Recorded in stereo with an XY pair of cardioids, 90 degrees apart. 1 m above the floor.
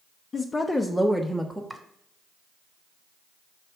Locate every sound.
0.3 s a woman speaking: 45° left, 0.7 m; by 1.6 s 15° right, 1.1 m
1.7 s chopping: 5° right, 1.6 m